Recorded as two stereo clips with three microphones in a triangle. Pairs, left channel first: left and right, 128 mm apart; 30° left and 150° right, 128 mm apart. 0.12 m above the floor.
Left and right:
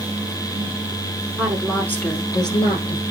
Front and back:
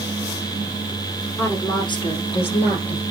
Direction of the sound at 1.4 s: 20° right.